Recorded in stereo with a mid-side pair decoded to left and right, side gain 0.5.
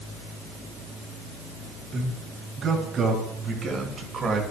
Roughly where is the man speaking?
Ahead right.